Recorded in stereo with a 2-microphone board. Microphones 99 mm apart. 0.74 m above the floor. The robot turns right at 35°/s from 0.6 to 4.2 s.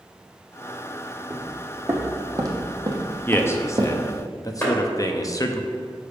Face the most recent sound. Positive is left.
turn(degrees=15)  # may be behind; listen again after turning